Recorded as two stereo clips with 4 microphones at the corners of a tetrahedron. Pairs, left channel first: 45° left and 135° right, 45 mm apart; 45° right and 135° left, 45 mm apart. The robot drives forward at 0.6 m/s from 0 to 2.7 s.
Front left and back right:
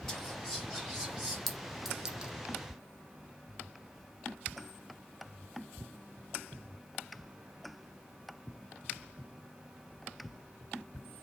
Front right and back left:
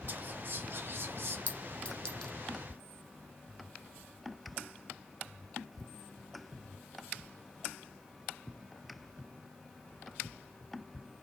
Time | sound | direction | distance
0.1 | whispering | 135° left | 0.8 m
1.5 | a clink | 35° right | 0.8 m